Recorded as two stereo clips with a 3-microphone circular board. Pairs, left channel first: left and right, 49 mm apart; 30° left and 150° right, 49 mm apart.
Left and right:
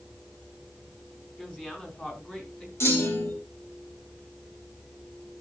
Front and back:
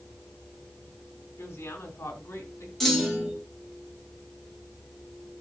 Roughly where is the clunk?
Behind left.